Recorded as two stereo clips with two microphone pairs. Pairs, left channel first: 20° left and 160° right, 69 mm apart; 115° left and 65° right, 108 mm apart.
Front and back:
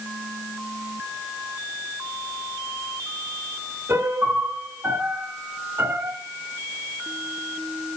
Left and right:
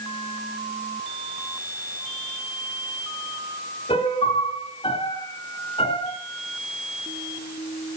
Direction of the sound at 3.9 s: 145° left.